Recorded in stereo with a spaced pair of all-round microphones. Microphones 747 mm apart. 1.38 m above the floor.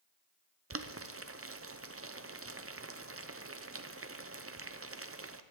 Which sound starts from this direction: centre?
Boiling, at 0.7 s.